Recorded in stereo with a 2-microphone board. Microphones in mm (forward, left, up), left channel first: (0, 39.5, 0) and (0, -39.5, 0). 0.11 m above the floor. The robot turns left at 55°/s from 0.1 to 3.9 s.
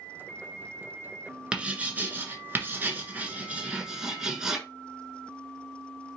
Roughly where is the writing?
Centre.